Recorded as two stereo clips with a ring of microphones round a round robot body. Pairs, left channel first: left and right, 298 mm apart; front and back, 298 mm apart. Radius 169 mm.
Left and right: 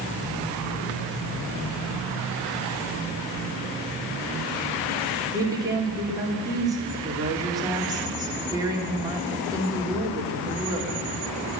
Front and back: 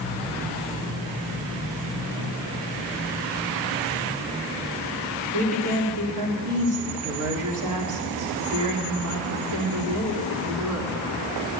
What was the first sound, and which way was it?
A woman speaking, 165° right.